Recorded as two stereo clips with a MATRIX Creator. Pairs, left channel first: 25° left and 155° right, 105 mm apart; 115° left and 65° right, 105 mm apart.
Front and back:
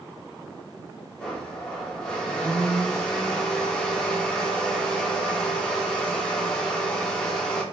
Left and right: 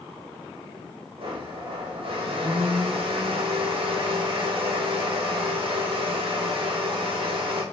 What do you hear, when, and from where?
1.2 s a blender: 60° right, 0.9 m